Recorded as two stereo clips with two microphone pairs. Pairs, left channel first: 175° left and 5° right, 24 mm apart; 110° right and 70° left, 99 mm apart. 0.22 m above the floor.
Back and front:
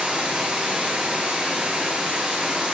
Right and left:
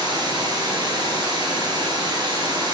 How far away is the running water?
About 1.4 m.